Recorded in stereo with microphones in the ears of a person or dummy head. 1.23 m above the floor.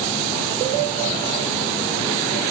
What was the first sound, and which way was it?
Only background noise.